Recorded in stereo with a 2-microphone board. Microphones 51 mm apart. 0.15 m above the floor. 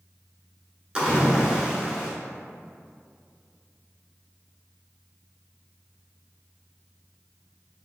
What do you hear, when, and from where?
0.9 s a splash: 20° right (ahead or behind), 1.1 m